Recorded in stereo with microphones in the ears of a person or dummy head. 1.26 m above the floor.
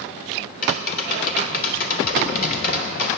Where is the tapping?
45° left (ahead or behind), 2.5 m.